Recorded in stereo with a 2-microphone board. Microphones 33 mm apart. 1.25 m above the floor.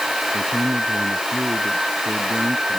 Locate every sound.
0.3 s a man speaking: 75° right (ahead or behind); by 2.8 s 65° right (ahead or behind)